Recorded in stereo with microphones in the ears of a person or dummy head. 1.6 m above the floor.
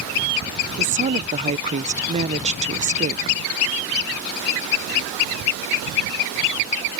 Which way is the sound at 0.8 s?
35° right (ahead or behind).